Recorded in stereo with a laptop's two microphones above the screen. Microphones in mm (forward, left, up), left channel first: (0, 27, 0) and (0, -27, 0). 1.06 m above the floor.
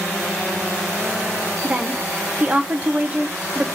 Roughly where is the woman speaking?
Right.